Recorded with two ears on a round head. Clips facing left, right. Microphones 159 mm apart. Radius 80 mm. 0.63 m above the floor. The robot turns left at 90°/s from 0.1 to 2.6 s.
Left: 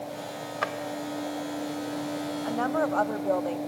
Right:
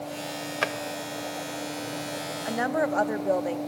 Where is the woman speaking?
20° right (ahead or behind), 0.8 m; by 3.6 s 15° right (ahead or behind), 0.8 m.